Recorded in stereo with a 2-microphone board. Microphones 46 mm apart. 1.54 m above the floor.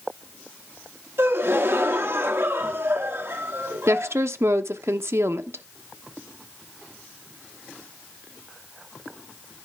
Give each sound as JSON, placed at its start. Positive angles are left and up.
{"t": 1.2, "sound": "a gasp", "side_deg": -70, "distance_m": 1.7}
{"t": 3.9, "sound": "a woman speaking", "side_deg": -90, "distance_m": 0.9}